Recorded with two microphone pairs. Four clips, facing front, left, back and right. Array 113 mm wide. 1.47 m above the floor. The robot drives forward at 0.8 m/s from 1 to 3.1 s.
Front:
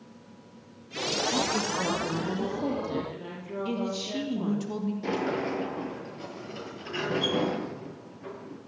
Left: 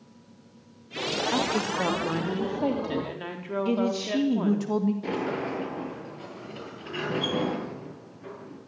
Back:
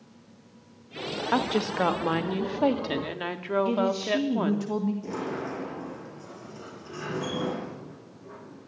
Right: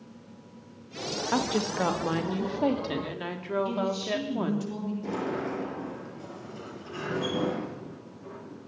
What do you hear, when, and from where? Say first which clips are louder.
1.3 s a woman speaking: right 1 dB, back 6 dB; 165° right, 2.5 m; by 4.7 s 170° right, 4 m
3.6 s a man speaking: left 3 dB, back 2 dB; 110° left, 2.5 m
5.0 s a sliding door: left 2 dB, front 3 dB; 30° left, 7.5 m